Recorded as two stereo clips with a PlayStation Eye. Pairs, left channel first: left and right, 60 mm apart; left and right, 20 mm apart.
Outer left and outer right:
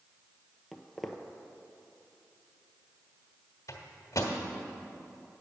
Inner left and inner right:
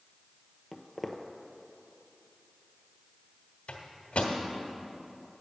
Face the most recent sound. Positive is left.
turn(degrees=70)  # may be behind; listen again after turning